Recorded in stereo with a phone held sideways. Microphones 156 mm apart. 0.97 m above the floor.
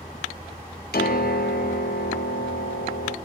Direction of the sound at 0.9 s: 75° left (ahead or behind).